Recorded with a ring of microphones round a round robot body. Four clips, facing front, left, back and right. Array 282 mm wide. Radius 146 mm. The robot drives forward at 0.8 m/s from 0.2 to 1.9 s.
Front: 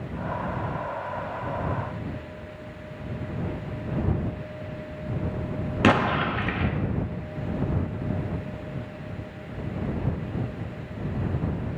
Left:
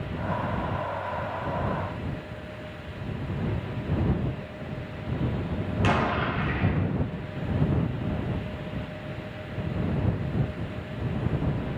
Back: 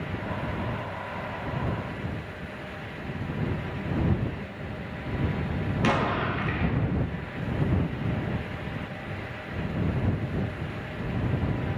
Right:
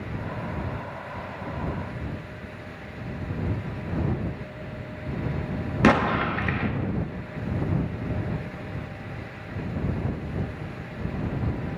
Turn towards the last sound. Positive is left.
turn(degrees=-55)